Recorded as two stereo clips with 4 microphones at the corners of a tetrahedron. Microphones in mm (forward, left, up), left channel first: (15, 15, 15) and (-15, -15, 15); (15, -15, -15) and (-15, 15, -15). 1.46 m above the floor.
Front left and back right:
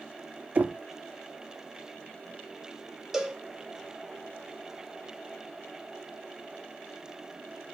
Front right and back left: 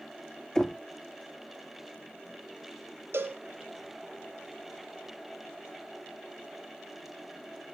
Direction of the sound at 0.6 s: 115° right.